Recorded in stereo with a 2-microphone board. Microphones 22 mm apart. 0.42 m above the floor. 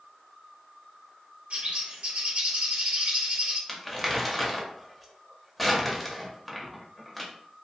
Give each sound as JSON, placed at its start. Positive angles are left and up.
{"t": 1.5, "sound": "a bird", "side_deg": -60, "distance_m": 0.7}
{"t": 3.7, "sound": "crumpling", "side_deg": 0, "distance_m": 0.6}